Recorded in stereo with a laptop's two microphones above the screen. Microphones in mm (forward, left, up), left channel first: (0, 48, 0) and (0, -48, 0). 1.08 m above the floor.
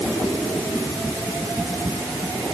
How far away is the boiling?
I don't hear boiling.